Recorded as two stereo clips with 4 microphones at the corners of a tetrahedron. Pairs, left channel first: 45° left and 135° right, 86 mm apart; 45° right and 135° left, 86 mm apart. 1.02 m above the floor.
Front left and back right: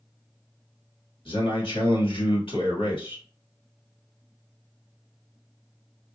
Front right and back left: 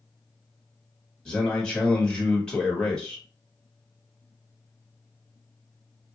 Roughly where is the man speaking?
Ahead left.